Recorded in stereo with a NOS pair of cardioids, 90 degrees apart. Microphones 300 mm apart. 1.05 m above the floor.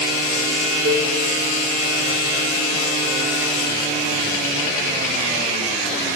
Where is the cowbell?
60° right, 4 m.